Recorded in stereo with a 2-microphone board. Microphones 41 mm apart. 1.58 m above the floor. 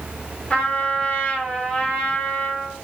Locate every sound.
0.5 s a trumpet: 25° left (ahead or behind), 1.4 m